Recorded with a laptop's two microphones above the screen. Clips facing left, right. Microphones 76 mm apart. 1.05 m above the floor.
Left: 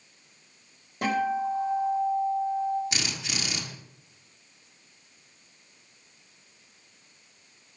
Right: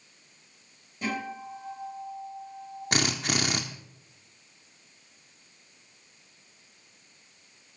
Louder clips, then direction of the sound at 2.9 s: Right 6 dB; 50° right (ahead or behind).